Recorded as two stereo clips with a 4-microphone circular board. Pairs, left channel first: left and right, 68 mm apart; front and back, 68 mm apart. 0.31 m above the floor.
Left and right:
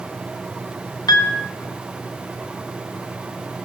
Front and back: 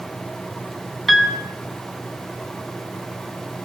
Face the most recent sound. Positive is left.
turn(degrees=90)